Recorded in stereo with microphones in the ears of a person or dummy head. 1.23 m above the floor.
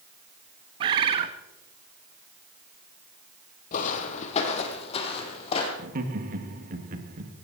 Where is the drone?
I don't hear a drone.